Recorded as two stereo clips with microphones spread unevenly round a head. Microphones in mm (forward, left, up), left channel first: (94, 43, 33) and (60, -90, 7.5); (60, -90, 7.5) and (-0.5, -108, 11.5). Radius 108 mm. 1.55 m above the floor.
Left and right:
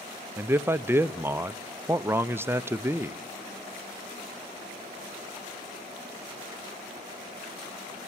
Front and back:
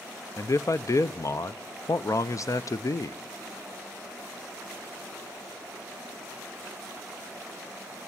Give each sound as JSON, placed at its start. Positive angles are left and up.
{"t": 0.4, "sound": "a man speaking", "azimuth_deg": -25, "distance_m": 0.5}